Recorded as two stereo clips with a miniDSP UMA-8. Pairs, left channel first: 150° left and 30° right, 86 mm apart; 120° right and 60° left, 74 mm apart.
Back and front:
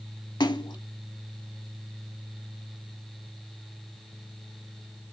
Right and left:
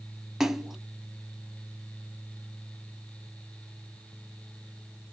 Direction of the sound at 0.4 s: 145° left.